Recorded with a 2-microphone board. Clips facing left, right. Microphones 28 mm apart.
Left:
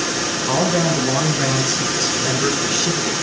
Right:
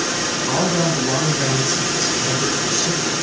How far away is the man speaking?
About 6 m.